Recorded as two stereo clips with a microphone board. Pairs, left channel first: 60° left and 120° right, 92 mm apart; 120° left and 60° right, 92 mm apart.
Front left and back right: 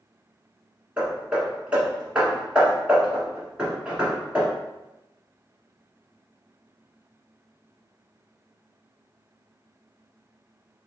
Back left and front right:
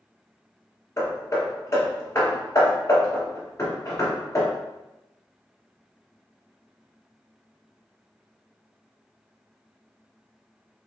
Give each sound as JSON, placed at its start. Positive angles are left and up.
{"t": 1.0, "sound": "hammering", "azimuth_deg": 165, "distance_m": 1.5}